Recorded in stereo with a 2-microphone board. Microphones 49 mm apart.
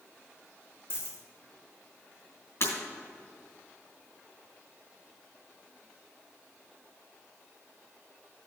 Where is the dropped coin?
50° left (ahead or behind), 1.7 m.